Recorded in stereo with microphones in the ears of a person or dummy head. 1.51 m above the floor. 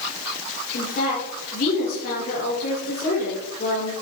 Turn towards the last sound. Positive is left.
turn(degrees=55)  # may be behind; listen again after turning